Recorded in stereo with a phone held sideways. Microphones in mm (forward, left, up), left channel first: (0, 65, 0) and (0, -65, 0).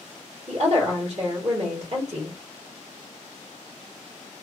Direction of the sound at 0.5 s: 50° right (ahead or behind).